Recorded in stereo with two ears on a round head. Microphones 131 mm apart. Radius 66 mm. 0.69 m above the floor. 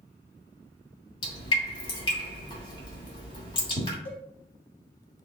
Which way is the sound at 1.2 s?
35° left (ahead or behind).